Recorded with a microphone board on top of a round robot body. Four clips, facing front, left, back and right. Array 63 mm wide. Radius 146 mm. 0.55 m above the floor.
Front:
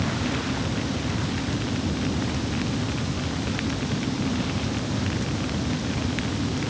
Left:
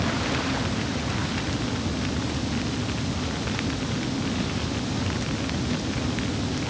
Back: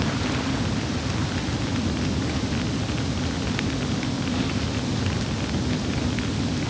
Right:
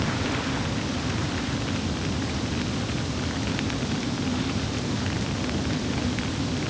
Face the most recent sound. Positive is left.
No sound to turn to.